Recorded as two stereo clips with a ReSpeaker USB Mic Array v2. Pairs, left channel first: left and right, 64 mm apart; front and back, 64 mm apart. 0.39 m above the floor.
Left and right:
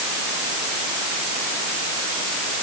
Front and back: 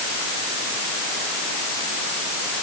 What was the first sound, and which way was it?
Only background noise.